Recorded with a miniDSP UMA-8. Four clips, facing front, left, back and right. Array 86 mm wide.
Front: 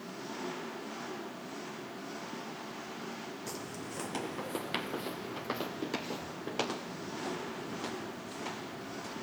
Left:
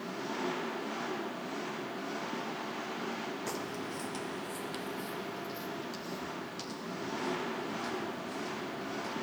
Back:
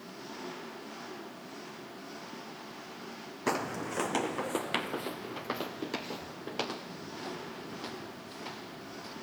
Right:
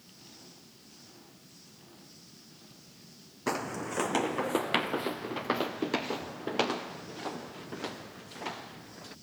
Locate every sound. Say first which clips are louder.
0.0 s an engine running: left 20 dB, front 3 dB; 85° left
3.5 s footsteps: right 4 dB, back 9 dB; 150° right; by 9.1 s 80° right